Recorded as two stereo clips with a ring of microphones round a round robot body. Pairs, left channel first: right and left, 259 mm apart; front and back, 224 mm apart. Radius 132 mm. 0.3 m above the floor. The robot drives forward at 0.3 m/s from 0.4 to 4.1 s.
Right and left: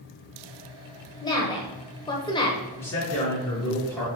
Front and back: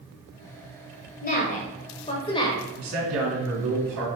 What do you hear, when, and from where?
1.2 s a woman speaking: 25° right, 1.2 m; by 2.6 s 50° right, 1.0 m
2.8 s a man speaking: 170° right, 3.5 m